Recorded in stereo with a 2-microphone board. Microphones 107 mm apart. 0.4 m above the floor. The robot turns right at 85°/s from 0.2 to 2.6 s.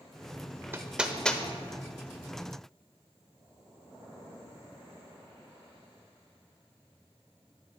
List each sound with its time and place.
0.7 s hammering: 25° right (ahead or behind), 0.7 m; by 1.4 s 15° left (ahead or behind), 0.7 m